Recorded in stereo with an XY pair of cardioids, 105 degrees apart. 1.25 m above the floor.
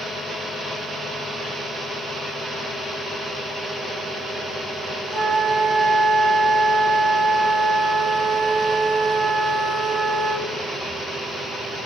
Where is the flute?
50° right, 1.9 m.